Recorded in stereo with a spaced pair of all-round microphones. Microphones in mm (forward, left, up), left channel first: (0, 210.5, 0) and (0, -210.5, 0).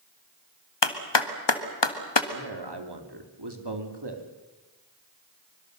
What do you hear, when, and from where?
0.8 s a clap: 80° left, 1.6 m
2.3 s a man speaking: 70° right (ahead or behind), 2.5 m